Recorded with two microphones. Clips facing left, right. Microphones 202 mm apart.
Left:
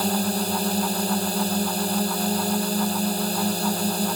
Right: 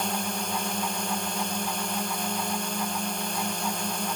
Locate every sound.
0.0 s a drone: 35° left (ahead or behind)